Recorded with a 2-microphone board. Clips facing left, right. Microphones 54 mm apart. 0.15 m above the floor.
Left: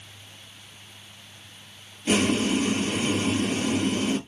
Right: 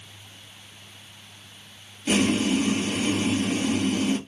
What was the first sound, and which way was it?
Boiling, 5° left (ahead or behind).